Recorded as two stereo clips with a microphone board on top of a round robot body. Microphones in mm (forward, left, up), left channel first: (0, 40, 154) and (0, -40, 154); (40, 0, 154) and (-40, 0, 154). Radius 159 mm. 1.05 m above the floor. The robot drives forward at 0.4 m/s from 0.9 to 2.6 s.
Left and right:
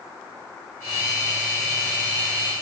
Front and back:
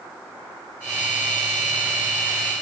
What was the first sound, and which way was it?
Only background noise.